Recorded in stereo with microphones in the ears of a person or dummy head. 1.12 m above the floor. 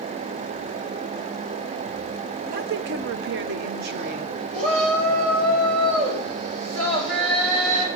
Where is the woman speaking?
40° right (ahead or behind), 0.5 m; by 4.3 s 50° right (ahead or behind), 1.1 m.